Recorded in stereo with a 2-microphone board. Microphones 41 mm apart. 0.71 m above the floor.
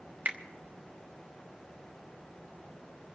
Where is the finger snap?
50° right (ahead or behind), 1.1 m.